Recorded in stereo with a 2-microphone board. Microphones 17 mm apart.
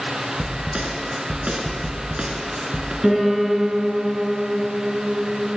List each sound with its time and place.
0.4 s a snare drum: 70° right (ahead or behind), 1.3 m
3.0 s a piano: 40° right (ahead or behind), 3 m